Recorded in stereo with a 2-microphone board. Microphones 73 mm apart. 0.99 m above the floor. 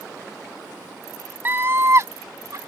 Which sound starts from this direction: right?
A scream, at 1.4 s.